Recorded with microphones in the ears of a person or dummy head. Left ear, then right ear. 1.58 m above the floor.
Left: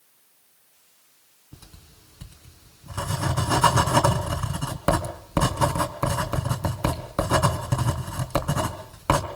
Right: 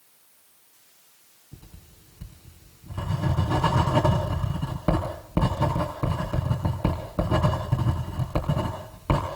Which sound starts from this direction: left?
Writing, at 1.5 s.